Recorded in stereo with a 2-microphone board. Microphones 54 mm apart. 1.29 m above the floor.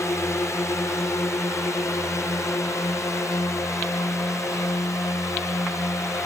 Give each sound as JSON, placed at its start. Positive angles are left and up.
{"t": 0.0, "sound": "a drone", "side_deg": 70}